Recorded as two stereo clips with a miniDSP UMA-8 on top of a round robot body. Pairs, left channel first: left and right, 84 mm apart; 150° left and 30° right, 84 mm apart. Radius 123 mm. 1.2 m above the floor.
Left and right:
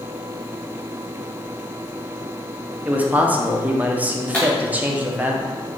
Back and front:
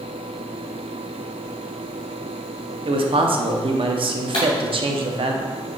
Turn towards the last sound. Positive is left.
turn(degrees=155)